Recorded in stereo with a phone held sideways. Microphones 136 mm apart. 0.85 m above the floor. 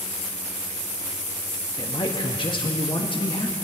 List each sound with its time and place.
1.8 s a man speaking: 35° left (ahead or behind), 1.4 m